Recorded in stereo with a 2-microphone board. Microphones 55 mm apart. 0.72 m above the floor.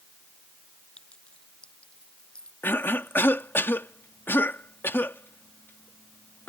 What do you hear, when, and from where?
1.0 s a clink: 20° left (ahead or behind)
2.6 s a cough: 45° left (ahead or behind)